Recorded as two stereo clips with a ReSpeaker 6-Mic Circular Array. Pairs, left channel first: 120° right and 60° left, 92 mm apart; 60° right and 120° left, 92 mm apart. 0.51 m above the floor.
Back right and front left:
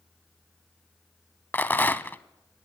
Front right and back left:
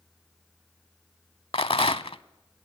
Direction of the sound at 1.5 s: 50° right.